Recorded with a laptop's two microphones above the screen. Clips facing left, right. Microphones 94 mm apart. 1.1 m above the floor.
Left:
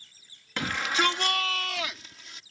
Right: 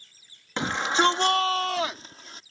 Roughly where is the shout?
Right.